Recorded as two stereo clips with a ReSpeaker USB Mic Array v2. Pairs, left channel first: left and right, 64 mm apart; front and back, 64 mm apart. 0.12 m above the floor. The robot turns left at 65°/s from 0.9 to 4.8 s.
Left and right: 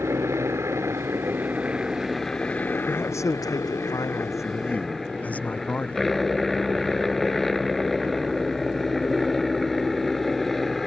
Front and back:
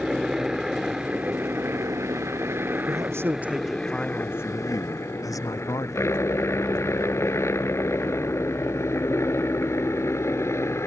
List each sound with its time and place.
0.0 s a helicopter: 100° right; by 10.9 s 5° left
2.9 s a man speaking: 150° left; by 6.1 s 25° left